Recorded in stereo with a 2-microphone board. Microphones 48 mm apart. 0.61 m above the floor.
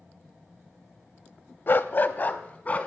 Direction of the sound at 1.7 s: 50° left (ahead or behind).